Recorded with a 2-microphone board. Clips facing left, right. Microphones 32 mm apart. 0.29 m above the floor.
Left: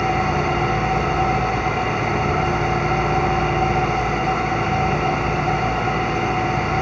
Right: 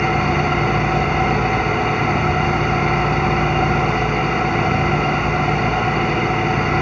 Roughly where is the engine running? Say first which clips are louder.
Right 2 dB; right.